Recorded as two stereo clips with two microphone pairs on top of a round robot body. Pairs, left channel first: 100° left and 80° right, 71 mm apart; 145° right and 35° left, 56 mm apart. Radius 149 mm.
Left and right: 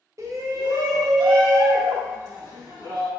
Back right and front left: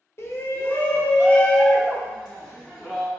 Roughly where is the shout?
Behind right.